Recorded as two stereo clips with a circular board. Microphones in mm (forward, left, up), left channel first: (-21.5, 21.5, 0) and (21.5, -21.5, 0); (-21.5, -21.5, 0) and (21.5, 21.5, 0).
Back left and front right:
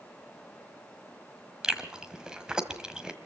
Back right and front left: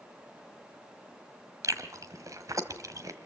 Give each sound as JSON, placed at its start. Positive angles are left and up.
{"t": 1.6, "sound": "chewing", "azimuth_deg": 30, "distance_m": 1.5}